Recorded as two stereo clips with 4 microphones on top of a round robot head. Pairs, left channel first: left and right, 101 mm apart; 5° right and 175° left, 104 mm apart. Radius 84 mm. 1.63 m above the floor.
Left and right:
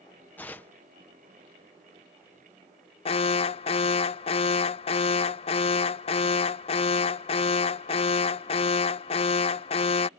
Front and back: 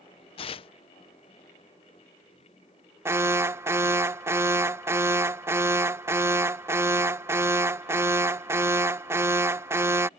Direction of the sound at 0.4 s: 10° left.